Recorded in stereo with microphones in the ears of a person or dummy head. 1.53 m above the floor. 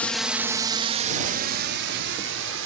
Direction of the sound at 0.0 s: 5° left (ahead or behind).